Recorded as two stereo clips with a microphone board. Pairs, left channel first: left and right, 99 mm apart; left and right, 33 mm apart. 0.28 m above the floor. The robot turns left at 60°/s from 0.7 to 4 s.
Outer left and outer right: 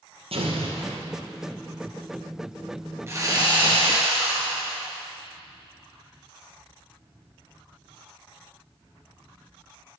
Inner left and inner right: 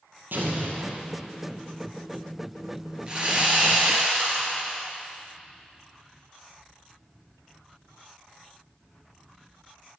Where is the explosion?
80° right, 2.0 m; by 1.1 s 70° right (ahead or behind), 2.0 m.